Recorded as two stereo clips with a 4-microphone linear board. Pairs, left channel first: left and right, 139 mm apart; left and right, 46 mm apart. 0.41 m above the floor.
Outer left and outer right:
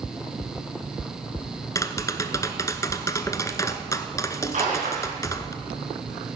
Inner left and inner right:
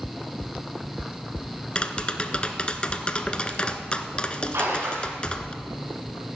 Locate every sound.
1.8 s tapping: 25° left (ahead or behind), 0.8 m
4.5 s a splash: 70° right (ahead or behind), 5.5 m